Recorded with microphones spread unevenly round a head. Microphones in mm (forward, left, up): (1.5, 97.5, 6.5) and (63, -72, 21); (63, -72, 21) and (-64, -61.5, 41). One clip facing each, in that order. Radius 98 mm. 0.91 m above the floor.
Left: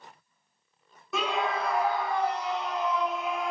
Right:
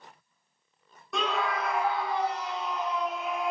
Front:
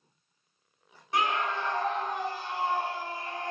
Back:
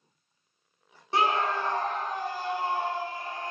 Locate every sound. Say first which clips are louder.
1.1 s a scream: left 1 dB, back 3 dB; straight behind, 0.5 m; by 3.5 s 115° left, 1.4 m